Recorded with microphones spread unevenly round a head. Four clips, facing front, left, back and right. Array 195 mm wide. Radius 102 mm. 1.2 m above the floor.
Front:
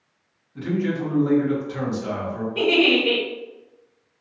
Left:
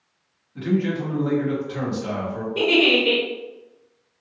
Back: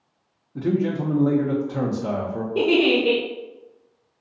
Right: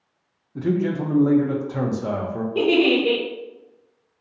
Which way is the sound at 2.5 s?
135° right.